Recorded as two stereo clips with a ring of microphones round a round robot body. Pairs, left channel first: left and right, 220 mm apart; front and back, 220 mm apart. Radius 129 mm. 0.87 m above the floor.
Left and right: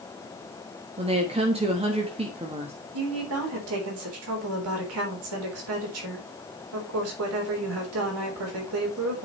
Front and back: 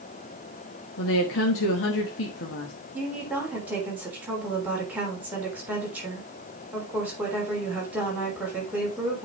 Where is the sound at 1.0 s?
25° right, 1.3 m.